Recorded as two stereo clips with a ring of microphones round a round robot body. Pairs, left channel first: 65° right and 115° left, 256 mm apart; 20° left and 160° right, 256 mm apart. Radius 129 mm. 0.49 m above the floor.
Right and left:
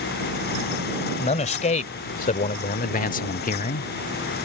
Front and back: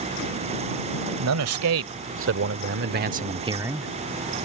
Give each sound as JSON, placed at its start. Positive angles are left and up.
{"t": 1.2, "sound": "a man speaking", "azimuth_deg": -130}